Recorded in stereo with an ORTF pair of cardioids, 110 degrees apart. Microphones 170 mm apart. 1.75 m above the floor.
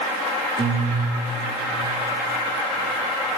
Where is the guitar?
30° right, 1.1 m.